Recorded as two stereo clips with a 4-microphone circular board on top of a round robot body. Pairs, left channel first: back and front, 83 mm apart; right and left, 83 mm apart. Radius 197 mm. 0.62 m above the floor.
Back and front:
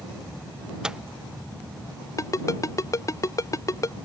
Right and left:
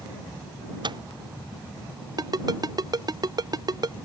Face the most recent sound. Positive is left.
turn(degrees=130)